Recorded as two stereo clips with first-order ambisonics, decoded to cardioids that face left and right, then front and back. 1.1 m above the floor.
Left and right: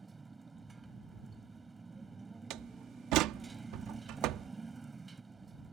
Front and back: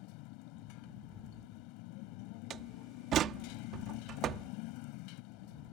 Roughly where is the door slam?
Behind right.